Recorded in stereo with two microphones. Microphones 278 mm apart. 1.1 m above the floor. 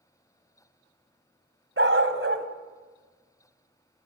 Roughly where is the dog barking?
Right.